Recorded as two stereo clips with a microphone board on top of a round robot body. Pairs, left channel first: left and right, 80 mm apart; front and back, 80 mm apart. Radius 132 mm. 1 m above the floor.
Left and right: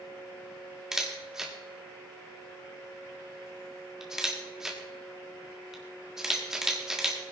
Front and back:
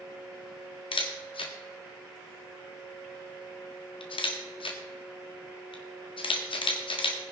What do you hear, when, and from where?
0.9 s a camera shutter: 5° right, 1.6 m